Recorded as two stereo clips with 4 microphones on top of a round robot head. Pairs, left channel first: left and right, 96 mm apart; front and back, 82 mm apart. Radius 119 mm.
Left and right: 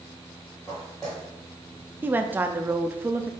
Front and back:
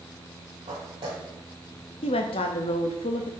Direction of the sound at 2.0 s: 20° right.